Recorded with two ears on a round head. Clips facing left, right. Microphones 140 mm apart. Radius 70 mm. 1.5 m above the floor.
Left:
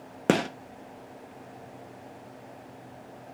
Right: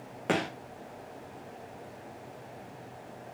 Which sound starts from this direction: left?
A gunshot, at 0.3 s.